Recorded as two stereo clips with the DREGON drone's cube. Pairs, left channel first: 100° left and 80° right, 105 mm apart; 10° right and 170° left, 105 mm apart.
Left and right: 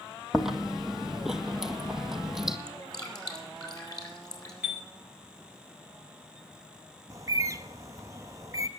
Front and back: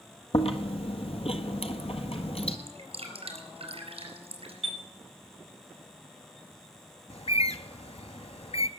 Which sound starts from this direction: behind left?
Dripping, at 2.7 s.